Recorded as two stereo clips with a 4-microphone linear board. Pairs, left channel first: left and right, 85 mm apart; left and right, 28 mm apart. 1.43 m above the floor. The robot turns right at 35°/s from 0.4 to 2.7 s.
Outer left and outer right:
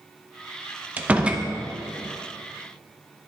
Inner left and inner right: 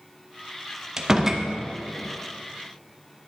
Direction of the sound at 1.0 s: 20° right (ahead or behind).